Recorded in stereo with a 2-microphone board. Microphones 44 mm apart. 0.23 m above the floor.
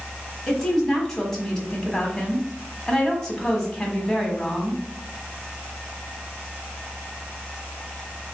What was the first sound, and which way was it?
A woman speaking, 15° left (ahead or behind).